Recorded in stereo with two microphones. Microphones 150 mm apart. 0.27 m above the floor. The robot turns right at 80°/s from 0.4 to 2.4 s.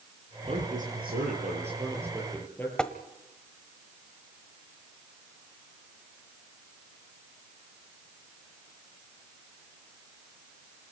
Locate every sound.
0.5 s a man speaking: 140° right, 7.5 m; by 2.7 s 15° left, 7.5 m
2.8 s tapping: 5° left (ahead or behind), 1.3 m